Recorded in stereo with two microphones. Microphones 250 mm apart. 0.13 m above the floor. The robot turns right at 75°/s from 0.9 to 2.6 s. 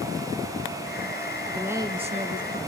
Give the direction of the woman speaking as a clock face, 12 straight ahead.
6 o'clock.